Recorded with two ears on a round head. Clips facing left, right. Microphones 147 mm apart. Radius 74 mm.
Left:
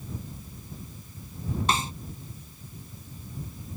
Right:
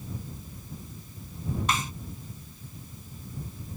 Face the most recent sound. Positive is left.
turn(degrees=30)  # may be behind; listen again after turning